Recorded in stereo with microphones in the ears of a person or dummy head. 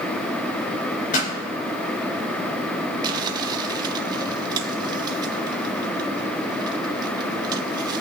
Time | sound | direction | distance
1.1 | a pop | 50° left (ahead or behind) | 4 m
3.0 | crumpling | 25° right (ahead or behind) | 0.9 m